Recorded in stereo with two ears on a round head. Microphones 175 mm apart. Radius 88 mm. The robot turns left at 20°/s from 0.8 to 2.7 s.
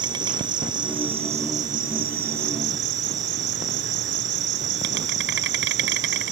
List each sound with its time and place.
0.0 s an insect: 25° right; by 6.3 s 60° right